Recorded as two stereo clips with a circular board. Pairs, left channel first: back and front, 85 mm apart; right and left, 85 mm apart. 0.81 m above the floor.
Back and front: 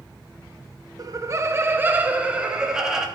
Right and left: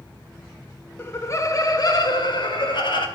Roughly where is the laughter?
Ahead right.